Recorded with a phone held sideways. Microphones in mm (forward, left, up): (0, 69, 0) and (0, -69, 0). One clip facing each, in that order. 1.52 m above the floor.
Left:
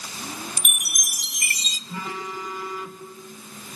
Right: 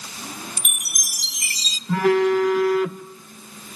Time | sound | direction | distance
0.6 | a chime | 50° left (ahead or behind) | 1.0 m
1.9 | a phone buzzing | 65° right (ahead or behind) | 0.9 m